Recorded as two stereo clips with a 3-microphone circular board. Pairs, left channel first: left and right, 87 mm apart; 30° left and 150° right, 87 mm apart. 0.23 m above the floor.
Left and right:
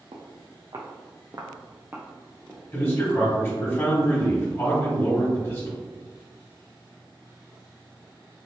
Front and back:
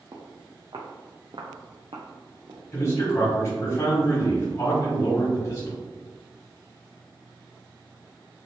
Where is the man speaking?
50° left, 1.5 m.